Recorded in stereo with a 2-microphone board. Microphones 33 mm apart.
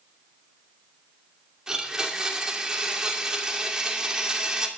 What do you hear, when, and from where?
1.7 s a blender: 20° right (ahead or behind), 2.5 m